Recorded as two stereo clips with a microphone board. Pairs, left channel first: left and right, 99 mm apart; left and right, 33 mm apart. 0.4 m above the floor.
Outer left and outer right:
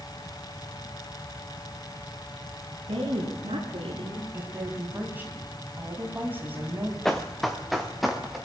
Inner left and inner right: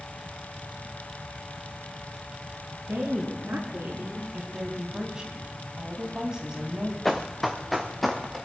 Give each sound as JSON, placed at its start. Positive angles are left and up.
{"t": 2.9, "sound": "a woman speaking", "side_deg": -75, "distance_m": 4.0}
{"t": 4.3, "sound": "a woman speaking", "side_deg": -20, "distance_m": 3.0}
{"t": 7.0, "sound": "running footsteps", "side_deg": 5, "distance_m": 1.5}